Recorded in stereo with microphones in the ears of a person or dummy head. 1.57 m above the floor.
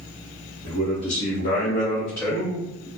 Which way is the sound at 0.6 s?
70° left (ahead or behind).